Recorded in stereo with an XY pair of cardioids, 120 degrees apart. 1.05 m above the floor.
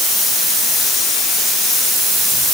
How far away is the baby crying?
I don't hear a baby crying.